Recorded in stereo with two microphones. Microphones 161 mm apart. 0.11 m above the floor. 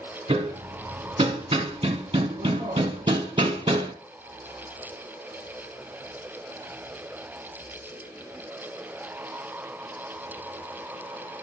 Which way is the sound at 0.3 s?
30° right (ahead or behind).